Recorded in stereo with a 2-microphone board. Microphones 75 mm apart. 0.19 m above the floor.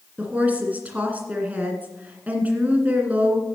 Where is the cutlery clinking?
No cutlery clinking in this recording.